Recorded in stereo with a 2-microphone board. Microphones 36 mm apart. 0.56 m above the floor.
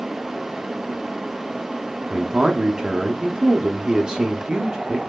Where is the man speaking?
25° right (ahead or behind), 0.7 m.